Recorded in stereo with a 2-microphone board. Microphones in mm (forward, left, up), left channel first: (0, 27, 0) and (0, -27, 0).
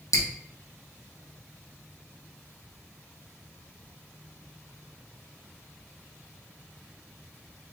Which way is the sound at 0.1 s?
80° left.